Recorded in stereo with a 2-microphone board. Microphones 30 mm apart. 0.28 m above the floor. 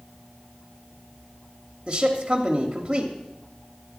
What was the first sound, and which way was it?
A man speaking, 25° right (ahead or behind).